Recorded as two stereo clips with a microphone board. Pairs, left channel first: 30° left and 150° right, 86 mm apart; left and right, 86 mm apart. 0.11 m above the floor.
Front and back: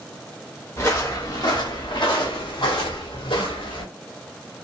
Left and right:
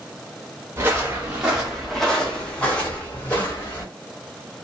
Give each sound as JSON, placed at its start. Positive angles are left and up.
{"t": 0.8, "sound": "footsteps", "azimuth_deg": -25, "distance_m": 1.2}